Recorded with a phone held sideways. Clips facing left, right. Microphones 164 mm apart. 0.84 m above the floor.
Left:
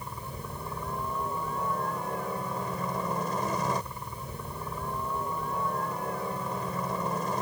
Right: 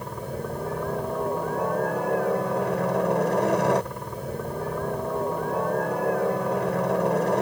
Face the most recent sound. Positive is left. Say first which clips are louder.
# right 9 dB
turn(degrees=-70)  # may be behind; listen again after turning